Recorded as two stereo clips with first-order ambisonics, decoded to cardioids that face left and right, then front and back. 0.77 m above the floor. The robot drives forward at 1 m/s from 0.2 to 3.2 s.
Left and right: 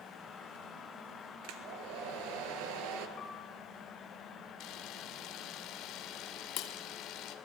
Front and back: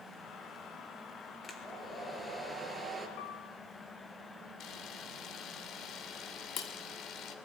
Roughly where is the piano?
Ahead left.